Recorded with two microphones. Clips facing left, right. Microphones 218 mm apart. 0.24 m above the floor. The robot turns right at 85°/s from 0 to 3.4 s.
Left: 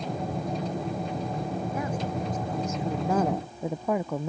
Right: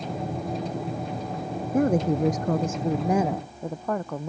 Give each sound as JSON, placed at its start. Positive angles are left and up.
{"t": 1.7, "sound": "a woman speaking", "azimuth_deg": -135}